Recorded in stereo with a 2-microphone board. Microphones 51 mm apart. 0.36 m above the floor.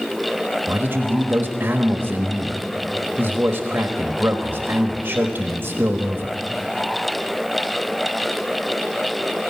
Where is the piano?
No piano in this recording.